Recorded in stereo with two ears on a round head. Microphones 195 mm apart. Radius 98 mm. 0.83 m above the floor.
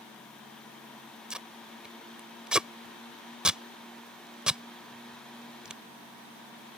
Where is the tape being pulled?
5° right (ahead or behind).